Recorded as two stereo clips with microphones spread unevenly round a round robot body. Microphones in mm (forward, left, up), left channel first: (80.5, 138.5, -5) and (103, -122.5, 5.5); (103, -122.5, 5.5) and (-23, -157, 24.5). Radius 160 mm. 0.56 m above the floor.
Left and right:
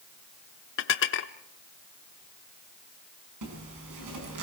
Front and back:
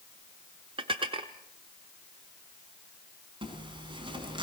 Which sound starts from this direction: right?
A zipper, at 3.4 s.